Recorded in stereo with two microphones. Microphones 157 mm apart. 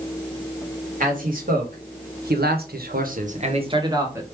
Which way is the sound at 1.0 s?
60° right (ahead or behind).